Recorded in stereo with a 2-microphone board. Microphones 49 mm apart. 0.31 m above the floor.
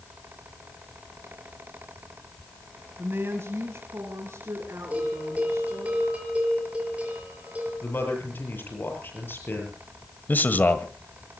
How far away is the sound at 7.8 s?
About 8 m.